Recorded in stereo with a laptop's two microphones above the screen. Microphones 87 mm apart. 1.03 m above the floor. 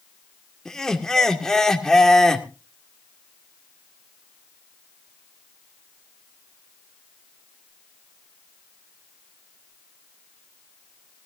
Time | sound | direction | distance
0.7 | laughter | 5° left (ahead or behind) | 2 m